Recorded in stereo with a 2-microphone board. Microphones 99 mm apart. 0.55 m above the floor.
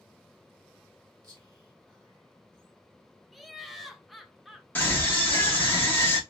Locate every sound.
1.2 s whispering: 45° right (ahead or behind), 1.9 m
3.3 s laughter: centre (ahead or behind), 0.6 m
4.8 s a scream: 20° left (ahead or behind), 1.0 m